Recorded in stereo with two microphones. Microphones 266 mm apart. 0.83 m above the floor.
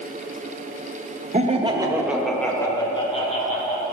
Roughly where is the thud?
I don't hear a thud.